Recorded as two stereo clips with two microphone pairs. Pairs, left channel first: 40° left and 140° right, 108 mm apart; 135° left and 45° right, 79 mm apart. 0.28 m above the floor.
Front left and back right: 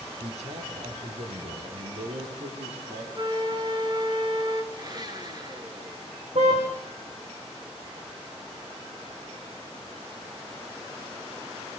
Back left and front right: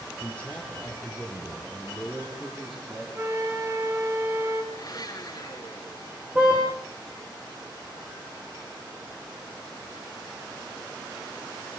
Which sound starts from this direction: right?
A flute, at 3.1 s.